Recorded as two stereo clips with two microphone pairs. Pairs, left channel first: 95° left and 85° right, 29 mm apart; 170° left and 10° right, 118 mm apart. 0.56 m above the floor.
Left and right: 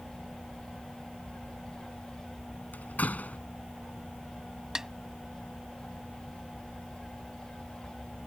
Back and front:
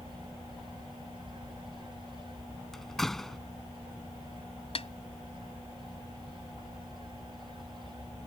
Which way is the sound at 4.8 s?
160° right.